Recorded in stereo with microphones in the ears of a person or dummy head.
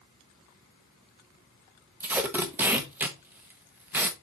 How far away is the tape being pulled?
About 1.0 m.